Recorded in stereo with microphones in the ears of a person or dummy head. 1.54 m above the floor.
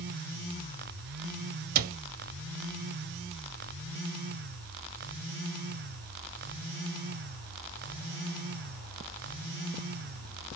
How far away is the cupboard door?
About 0.6 m.